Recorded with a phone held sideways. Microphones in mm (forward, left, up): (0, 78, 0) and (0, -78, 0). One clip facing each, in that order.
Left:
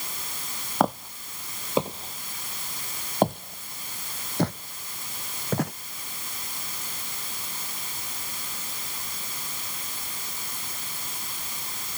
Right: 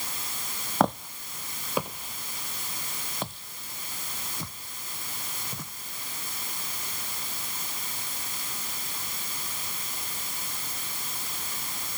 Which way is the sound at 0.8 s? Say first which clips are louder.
Even; 5° left (ahead or behind).